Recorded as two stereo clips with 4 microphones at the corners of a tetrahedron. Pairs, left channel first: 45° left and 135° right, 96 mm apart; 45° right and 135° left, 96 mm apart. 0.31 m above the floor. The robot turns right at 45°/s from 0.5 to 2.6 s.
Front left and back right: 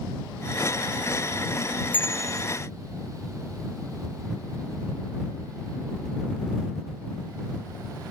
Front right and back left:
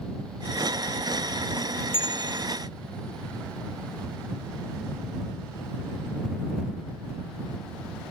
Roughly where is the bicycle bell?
Ahead right.